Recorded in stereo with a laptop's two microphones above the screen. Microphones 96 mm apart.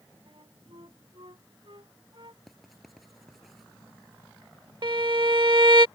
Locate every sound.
0.3 s a flute: 60° right (ahead or behind)
2.5 s writing: centre (ahead or behind)
4.8 s a violin: 50° right (ahead or behind)